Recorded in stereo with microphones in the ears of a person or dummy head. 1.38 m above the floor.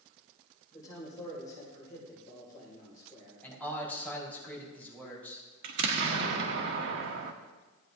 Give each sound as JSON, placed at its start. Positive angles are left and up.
{"t": 0.7, "sound": "a man speaking", "side_deg": 20, "distance_m": 5.0}
{"t": 3.4, "sound": "a man speaking", "side_deg": 10, "distance_m": 4.0}
{"t": 5.6, "sound": "an explosion", "side_deg": -60, "distance_m": 1.0}